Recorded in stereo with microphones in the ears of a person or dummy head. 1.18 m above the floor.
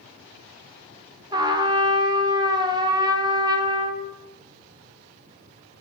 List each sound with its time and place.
1.3 s a trumpet: 15° right (ahead or behind), 0.7 m